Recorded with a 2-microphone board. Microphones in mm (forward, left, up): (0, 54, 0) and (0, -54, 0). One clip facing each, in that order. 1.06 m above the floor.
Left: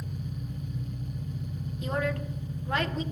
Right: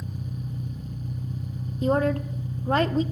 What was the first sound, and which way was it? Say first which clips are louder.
An engine running: right 2 dB; 35° right (ahead or behind).